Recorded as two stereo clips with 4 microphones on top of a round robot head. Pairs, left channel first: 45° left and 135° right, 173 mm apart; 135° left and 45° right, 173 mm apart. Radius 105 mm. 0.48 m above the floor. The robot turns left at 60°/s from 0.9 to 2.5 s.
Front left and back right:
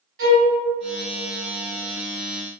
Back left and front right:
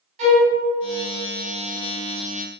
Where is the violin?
100° right, 1.4 m.